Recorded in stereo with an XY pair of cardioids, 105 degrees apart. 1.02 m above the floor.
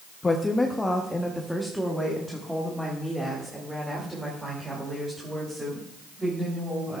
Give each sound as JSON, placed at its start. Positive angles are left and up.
{"t": 0.2, "sound": "a woman speaking", "azimuth_deg": 25, "distance_m": 0.8}